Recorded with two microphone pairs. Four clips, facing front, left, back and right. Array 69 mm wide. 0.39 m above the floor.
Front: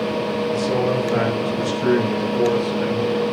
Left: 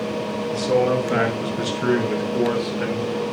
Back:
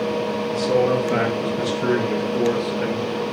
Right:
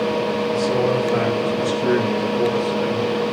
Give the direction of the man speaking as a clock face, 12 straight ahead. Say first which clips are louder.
Left 2 dB, back 3 dB; 9 o'clock.